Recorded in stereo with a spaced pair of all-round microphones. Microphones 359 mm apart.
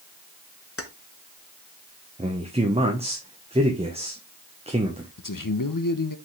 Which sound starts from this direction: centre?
A man speaking, at 2.2 s.